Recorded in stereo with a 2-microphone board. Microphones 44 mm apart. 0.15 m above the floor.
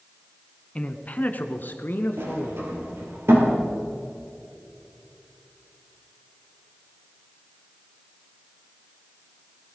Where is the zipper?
I don't hear a zipper.